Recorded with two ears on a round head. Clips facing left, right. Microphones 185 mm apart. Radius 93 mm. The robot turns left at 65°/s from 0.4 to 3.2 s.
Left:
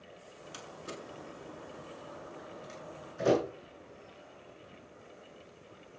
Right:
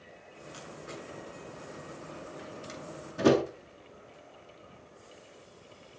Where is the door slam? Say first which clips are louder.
Right 1 dB; 65° left (ahead or behind), 8.5 m; by 3.4 s 75° right (ahead or behind), 8.5 m.